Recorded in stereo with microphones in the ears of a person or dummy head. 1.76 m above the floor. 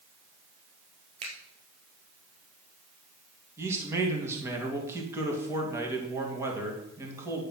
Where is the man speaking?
20° right (ahead or behind), 3 m.